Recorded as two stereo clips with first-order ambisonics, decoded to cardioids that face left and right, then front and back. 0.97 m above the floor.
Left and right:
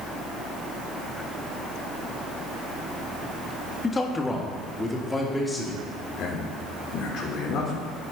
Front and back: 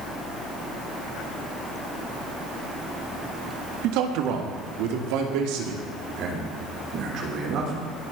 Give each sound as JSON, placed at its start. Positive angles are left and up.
{"t": 3.8, "sound": "a man speaking", "azimuth_deg": 165, "distance_m": 1.5}
{"t": 6.2, "sound": "a man speaking", "azimuth_deg": 140, "distance_m": 3.5}